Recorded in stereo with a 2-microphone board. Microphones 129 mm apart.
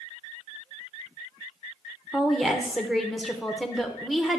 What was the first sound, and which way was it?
A woman speaking, centre (ahead or behind).